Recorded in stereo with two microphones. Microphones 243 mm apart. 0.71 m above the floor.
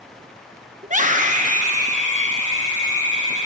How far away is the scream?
About 0.7 m.